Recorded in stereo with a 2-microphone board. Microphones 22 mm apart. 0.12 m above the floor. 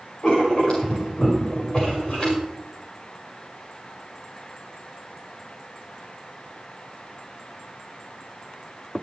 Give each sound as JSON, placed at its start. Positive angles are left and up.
{"t": 0.2, "sound": "writing", "side_deg": 45, "distance_m": 6.5}